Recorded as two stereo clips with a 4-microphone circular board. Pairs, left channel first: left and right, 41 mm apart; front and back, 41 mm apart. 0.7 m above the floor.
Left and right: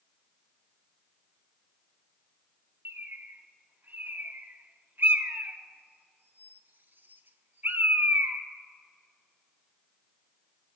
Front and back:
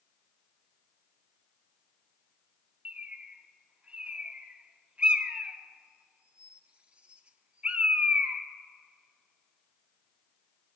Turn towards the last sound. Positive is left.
turn(degrees=-120)